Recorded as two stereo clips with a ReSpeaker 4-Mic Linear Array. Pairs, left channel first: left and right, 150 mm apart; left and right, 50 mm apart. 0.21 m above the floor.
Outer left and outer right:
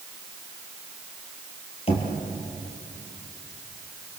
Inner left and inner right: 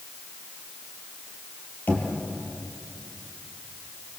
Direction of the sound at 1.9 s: 40° left (ahead or behind).